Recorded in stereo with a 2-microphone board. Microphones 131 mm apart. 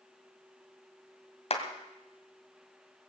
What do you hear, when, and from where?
1.5 s a clap: 55° left (ahead or behind), 2 m